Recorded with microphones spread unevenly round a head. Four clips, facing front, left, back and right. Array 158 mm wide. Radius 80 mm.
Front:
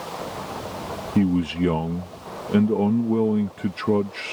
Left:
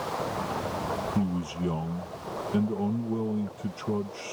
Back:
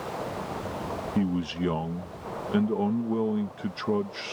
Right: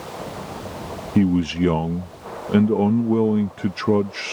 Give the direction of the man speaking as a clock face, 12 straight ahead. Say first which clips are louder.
Right 11 dB, front 8 dB; 2 o'clock.